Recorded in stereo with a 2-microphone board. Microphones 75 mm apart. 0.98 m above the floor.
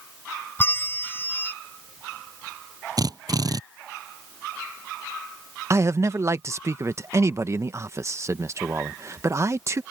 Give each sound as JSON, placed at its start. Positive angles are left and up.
{"t": 0.6, "sound": "a bell", "side_deg": 30}
{"t": 3.0, "sound": "a drill", "side_deg": -55}
{"t": 5.7, "sound": "a man speaking", "side_deg": -40}